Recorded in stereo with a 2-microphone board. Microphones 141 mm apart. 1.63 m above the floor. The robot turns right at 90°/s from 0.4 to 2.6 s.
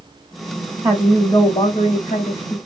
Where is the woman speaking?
20° right, 1.0 m; by 2.6 s 135° left, 1.0 m.